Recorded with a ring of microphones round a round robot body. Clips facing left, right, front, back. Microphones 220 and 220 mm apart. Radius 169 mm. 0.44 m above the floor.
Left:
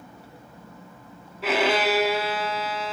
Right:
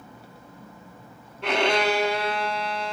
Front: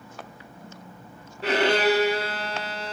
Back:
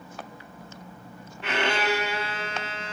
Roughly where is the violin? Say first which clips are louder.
Even, front 6 dB; ahead.